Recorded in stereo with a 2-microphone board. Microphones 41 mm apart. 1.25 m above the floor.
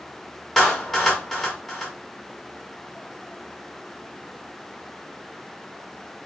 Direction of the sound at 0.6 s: 15° left (ahead or behind).